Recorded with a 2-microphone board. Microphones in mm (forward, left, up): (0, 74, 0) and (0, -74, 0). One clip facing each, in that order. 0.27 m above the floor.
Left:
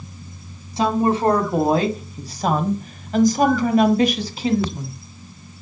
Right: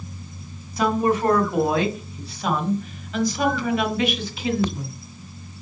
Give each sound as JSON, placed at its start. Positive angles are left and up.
{"t": 0.8, "sound": "a woman speaking", "side_deg": 30, "distance_m": 2.0}